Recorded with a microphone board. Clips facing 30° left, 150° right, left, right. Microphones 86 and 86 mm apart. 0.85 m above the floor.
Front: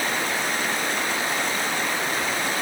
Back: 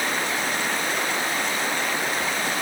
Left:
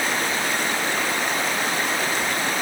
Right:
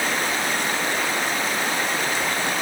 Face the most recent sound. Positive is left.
No sound to turn to.